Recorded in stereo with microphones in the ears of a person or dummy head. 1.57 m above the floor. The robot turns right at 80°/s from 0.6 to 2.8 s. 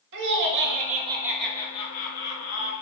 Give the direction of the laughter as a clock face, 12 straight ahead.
2 o'clock.